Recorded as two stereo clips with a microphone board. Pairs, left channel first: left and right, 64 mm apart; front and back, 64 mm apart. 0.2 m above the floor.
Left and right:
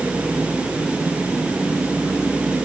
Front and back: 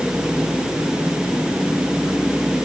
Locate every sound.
Only background noise.